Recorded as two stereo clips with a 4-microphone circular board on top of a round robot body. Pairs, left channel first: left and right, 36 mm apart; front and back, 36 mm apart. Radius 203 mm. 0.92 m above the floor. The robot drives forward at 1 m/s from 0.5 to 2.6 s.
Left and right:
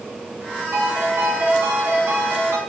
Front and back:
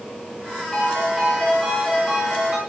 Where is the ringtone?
75° right, 4.5 m; by 2.6 s 100° right, 4.5 m.